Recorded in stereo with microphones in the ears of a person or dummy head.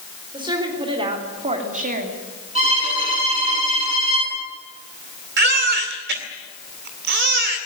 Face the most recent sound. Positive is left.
turn(degrees=-60)  # may be behind; listen again after turning